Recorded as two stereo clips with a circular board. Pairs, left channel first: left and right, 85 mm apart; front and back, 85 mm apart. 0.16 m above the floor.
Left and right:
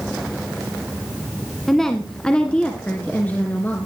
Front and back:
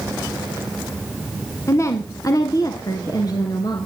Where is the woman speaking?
5° left, 1.8 m; by 3.9 s 25° left, 3 m.